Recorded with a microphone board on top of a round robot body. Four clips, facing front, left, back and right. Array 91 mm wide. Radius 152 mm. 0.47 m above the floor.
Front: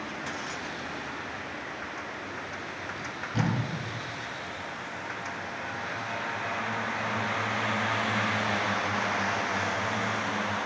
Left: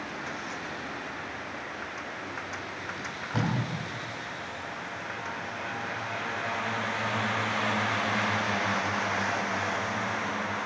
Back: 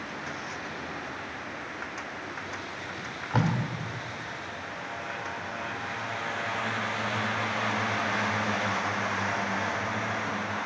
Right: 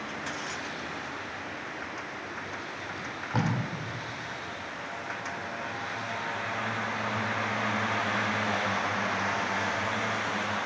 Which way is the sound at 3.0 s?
155° right.